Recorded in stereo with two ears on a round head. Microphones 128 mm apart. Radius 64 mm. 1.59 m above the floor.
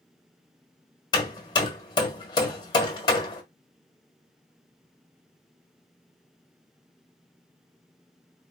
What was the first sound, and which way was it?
Hammering, 30° left (ahead or behind).